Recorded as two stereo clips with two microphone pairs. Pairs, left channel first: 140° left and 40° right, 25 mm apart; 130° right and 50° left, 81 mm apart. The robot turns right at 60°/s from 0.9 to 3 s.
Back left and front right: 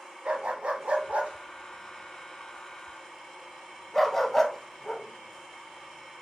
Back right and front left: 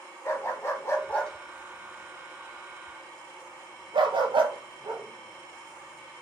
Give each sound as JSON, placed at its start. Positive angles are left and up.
{"t": 0.2, "sound": "a dog barking", "azimuth_deg": -70, "distance_m": 0.7}